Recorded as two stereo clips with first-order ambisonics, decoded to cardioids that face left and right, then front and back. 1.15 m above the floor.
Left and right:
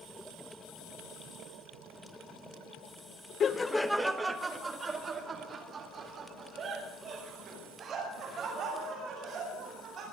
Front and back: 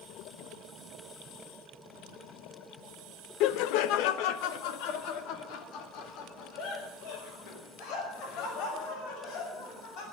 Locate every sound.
3.4 s laughter: 30° left, 0.7 m; by 10.0 s 35° right, 7.5 m